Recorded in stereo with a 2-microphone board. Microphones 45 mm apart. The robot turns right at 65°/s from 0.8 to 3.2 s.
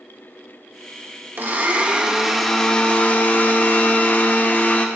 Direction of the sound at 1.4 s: 65° right.